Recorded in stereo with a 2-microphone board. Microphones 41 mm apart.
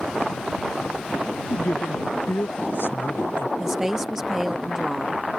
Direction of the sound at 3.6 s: 10° right (ahead or behind).